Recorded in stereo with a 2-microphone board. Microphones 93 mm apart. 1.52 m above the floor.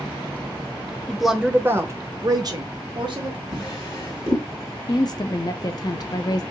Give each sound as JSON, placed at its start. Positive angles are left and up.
{"t": 1.1, "sound": "a woman speaking", "side_deg": 5, "distance_m": 0.6}
{"t": 3.5, "sound": "a drawer", "side_deg": 40, "distance_m": 1.6}
{"t": 4.9, "sound": "a woman speaking", "side_deg": 45, "distance_m": 0.6}